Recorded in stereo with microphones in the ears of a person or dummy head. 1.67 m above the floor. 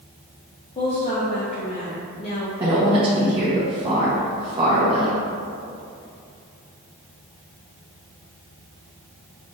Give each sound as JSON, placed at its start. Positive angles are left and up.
{"t": 0.8, "sound": "a woman speaking", "side_deg": 25, "distance_m": 0.7}
{"t": 2.6, "sound": "a woman speaking", "side_deg": -30, "distance_m": 1.1}